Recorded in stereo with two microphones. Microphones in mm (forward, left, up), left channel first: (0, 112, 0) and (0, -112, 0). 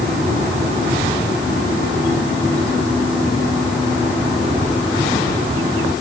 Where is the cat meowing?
No cat meowing in this recording.